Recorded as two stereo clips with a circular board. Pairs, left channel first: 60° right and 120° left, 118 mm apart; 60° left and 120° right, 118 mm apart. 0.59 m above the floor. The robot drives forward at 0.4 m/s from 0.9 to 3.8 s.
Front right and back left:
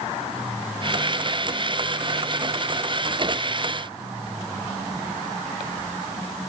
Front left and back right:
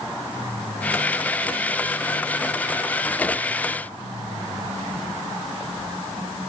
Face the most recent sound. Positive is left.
No sound to turn to.